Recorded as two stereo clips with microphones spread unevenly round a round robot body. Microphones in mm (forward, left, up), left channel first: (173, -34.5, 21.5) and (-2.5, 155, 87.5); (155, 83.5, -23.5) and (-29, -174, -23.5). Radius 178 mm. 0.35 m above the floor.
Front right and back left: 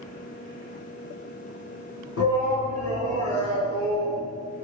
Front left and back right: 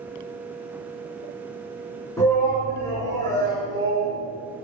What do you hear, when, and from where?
2.2 s a shout: 25° right, 3.5 m